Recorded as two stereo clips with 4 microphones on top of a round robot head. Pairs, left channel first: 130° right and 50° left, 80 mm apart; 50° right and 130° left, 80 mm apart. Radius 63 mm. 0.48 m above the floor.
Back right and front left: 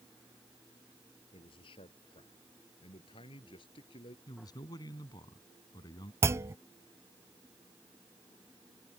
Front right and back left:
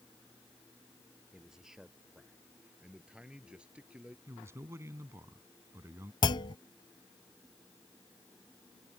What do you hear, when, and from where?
1.3 s a man speaking: 145° right; by 4.2 s 150° right
4.3 s a man speaking: 170° right
6.2 s a clunk: 10° right